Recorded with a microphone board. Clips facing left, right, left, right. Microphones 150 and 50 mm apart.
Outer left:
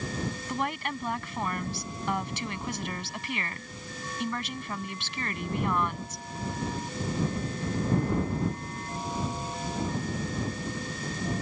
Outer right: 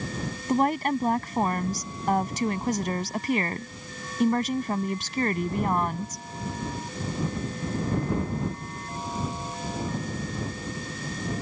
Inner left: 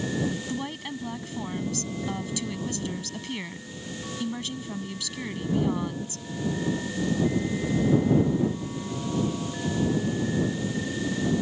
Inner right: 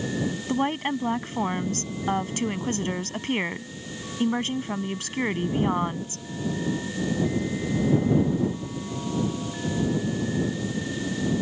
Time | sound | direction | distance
0.5 | a woman speaking | 45° right (ahead or behind) | ?